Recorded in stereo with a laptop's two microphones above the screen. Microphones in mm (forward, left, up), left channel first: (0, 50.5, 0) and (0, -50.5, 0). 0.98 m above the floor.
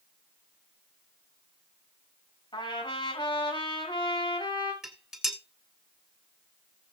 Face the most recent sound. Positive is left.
turn(degrees=-5)  # may be behind; listen again after turning